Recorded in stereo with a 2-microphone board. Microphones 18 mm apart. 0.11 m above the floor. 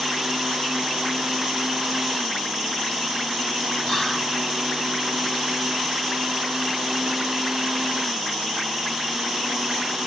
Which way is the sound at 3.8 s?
20° left (ahead or behind).